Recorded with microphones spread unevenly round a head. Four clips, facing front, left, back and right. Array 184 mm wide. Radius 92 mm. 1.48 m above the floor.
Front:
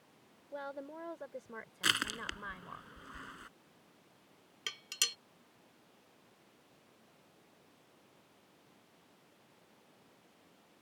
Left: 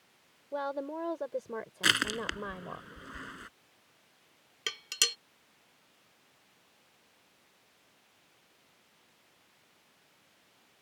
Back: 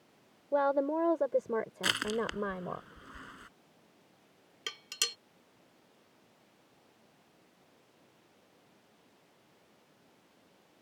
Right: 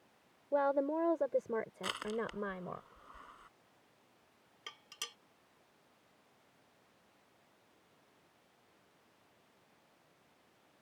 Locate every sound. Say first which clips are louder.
0.5 s a woman speaking: right 4 dB, back 16 dB; 160° right; by 2.8 s straight behind
1.8 s crushing: left 6 dB, back 5 dB; 80° left
4.7 s dishes clattering: left 12 dB, back 3 dB; 90° left